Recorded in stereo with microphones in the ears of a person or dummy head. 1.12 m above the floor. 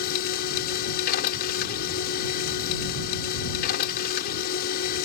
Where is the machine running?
50° left (ahead or behind).